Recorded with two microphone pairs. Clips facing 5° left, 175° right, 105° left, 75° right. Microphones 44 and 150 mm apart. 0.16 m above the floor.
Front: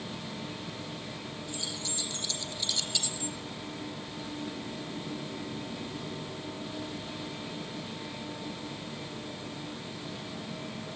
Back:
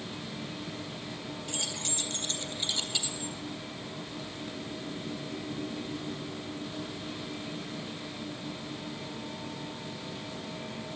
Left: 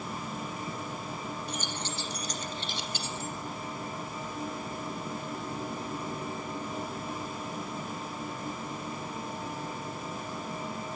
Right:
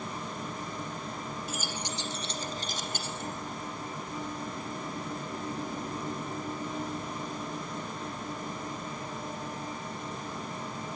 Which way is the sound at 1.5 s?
160° right.